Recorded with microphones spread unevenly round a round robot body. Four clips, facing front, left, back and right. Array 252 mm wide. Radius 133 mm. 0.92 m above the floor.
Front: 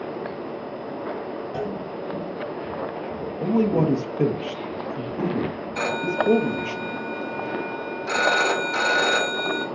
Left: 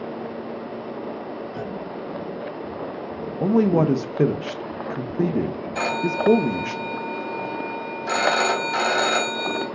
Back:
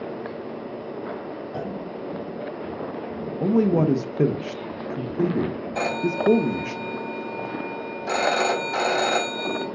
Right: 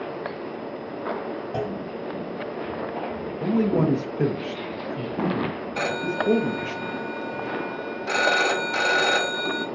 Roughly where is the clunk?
Right.